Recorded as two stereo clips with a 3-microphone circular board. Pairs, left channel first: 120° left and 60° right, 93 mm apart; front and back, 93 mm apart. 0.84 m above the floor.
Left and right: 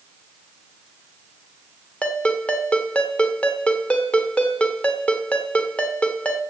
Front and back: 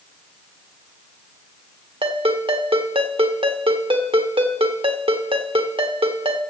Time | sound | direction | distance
2.0 | a ringtone | 165° right | 1.3 m